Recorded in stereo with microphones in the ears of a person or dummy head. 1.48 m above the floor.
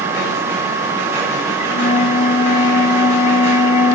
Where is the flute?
35° left (ahead or behind), 2.5 m.